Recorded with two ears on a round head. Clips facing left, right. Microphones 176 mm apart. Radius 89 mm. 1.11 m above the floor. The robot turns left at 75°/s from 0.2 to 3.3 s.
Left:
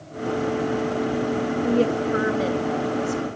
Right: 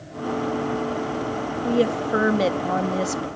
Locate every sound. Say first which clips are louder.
1.6 s a woman speaking: right 1 dB; straight ahead, 1.6 m; by 3.3 s 120° right, 1.6 m